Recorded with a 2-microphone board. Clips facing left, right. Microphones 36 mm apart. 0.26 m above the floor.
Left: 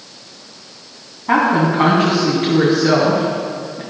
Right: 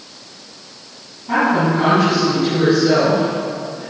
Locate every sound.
1.3 s a woman speaking: 55° left (ahead or behind), 2.5 m